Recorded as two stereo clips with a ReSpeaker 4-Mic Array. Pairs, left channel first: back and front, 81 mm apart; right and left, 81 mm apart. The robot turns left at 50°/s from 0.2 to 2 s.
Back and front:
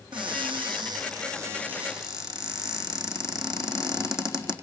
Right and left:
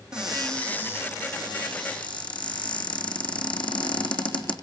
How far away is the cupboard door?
About 3.5 m.